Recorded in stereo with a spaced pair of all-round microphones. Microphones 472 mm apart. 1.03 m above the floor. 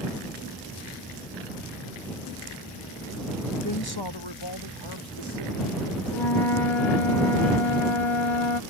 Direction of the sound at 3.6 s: 40° left (ahead or behind).